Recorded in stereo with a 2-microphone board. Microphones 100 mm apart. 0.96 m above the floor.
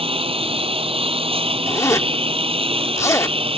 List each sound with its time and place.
0.0 s a lawn mower: 70° right (ahead or behind)
1.7 s a zipper: 30° left (ahead or behind)